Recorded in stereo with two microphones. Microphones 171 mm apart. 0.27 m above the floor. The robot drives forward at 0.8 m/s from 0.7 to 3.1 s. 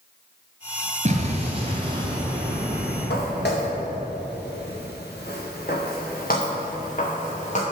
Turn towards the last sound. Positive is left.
turn(degrees=45)  # may be behind; listen again after turning